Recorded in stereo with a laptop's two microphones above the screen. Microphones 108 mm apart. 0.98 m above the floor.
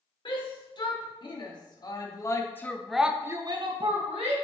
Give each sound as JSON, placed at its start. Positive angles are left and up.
{"t": 0.2, "sound": "a shout", "side_deg": 50, "distance_m": 3.0}